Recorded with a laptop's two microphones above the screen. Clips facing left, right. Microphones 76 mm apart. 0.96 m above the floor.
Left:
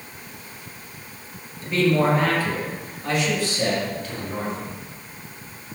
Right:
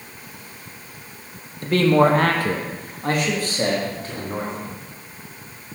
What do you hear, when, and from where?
1.6 s a man speaking: 55° right (ahead or behind), 0.8 m; by 4.7 s 30° right (ahead or behind), 2 m